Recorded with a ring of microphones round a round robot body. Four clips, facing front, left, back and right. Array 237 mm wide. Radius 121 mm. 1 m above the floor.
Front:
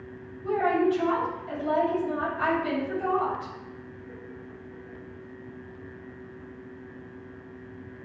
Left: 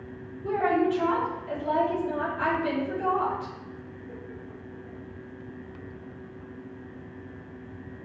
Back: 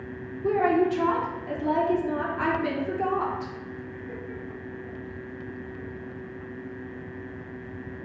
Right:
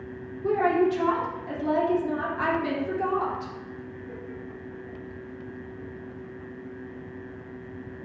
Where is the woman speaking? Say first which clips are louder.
Right 2 dB, back 2 dB; 140° right, 3 m.